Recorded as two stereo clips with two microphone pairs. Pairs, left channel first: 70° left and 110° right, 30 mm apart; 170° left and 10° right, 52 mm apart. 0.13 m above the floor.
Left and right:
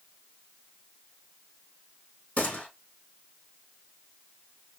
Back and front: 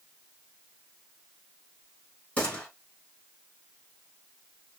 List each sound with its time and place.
2.4 s a gunshot: 105° left, 4 m